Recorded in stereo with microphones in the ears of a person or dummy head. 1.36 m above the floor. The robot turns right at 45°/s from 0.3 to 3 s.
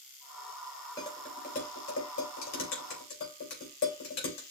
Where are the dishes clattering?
25° left (ahead or behind), 3.5 m; by 4.4 s 65° left (ahead or behind), 3.5 m.